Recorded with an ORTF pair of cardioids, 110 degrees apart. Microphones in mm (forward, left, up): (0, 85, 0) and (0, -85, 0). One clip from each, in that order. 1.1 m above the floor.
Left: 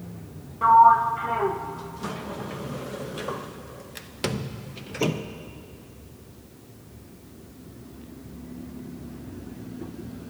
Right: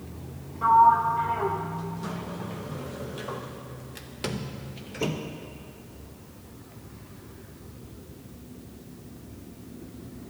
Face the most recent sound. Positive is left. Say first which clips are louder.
# left 3 dB
turn(degrees=25)